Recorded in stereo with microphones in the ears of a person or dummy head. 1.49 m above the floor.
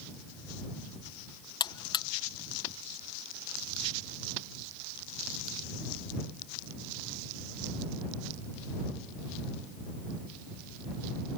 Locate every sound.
1.6 s a buzzer: 20° left (ahead or behind)